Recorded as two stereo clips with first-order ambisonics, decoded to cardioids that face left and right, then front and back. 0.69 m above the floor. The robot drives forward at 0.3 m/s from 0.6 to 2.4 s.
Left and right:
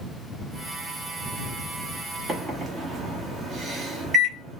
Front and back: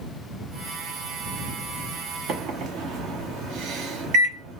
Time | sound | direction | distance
2.3 | a microwave | 155° right | 0.9 m